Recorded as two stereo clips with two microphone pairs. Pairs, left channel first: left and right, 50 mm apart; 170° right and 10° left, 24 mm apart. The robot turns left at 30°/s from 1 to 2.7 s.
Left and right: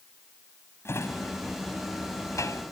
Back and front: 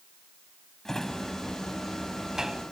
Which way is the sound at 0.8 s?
125° left.